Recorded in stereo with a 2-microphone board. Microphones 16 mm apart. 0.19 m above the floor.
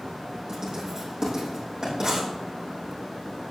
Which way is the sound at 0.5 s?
45° right (ahead or behind).